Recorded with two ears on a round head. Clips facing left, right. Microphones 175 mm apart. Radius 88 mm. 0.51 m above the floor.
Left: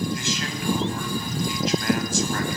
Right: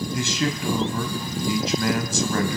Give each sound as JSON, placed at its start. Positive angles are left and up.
{"t": 0.1, "sound": "a man speaking", "side_deg": -70, "distance_m": 3.5}